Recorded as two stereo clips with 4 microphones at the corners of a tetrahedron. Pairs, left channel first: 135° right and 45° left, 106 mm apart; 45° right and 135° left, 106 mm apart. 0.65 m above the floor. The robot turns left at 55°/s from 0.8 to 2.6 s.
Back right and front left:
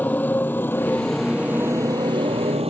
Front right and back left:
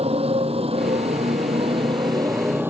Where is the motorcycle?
150° left; by 2.7 s 65° left.